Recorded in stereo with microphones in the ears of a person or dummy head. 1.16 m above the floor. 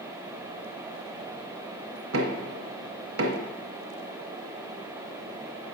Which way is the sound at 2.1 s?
70° right (ahead or behind).